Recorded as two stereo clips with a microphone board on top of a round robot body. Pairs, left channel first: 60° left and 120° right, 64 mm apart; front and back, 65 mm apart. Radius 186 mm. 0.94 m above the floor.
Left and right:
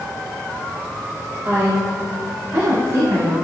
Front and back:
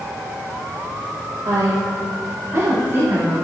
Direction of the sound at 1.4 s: 165° right.